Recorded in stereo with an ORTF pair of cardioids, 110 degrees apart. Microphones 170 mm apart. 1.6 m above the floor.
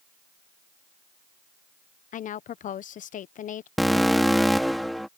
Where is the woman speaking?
50° left.